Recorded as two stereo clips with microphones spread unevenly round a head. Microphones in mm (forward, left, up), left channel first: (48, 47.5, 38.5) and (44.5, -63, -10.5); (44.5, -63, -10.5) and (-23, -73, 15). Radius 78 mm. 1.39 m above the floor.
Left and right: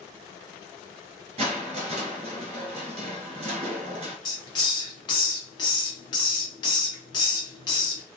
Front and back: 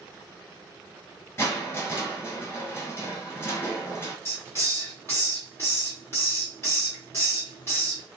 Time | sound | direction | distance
1.4 | crushing | 50° right | 1.8 m
4.2 | a hiss | 90° left | 0.7 m